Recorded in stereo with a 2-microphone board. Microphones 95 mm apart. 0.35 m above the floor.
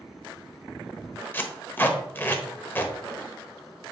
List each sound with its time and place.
1.3 s tape being pulled: 20° left (ahead or behind), 1.1 m